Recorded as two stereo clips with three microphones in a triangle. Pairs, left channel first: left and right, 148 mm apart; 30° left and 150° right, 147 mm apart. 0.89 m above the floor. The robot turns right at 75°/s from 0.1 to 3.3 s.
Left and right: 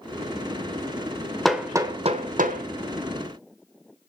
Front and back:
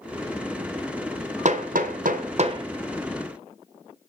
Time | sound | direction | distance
1.4 | hammering | straight behind | 1.8 m